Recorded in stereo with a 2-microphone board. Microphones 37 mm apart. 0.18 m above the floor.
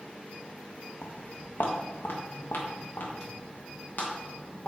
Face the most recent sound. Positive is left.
turn(degrees=55)  # may be behind; listen again after turning